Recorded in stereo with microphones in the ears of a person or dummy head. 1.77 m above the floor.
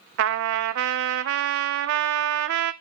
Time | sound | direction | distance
0.2 | a trumpet | 60° right (ahead or behind) | 0.7 m